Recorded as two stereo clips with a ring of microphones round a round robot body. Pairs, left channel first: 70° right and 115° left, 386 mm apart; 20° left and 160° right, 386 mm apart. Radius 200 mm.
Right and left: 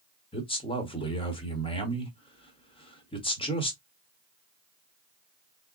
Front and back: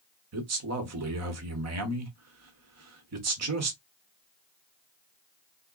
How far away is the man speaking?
About 1.2 m.